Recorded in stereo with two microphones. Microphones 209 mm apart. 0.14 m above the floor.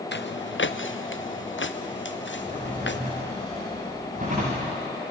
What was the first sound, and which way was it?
Footsteps, 65° left (ahead or behind).